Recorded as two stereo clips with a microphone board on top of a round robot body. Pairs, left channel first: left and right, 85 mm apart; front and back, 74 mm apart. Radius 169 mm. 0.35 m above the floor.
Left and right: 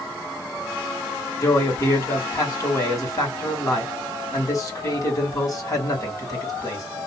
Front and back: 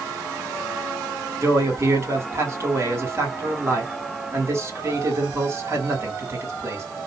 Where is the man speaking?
135° left, 2 m.